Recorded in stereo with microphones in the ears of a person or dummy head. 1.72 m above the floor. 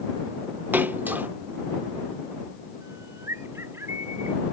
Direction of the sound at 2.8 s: 20° right (ahead or behind).